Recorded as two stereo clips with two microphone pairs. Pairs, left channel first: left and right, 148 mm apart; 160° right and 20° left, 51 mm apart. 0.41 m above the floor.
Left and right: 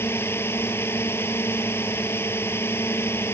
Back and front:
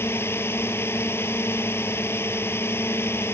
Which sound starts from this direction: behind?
A drone, at 0.0 s.